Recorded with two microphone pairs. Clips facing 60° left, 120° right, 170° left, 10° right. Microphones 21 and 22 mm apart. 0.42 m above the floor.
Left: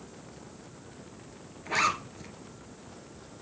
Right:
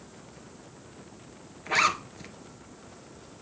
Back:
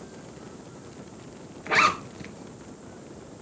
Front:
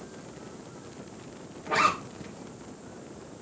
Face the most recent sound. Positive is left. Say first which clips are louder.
# right 3 dB, back 3 dB
turn(degrees=160)